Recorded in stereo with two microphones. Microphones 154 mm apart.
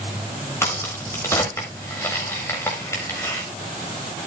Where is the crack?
15° left (ahead or behind), 8 m.